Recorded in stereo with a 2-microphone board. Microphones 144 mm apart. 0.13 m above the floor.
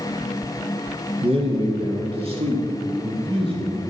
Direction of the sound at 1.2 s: 40° right (ahead or behind).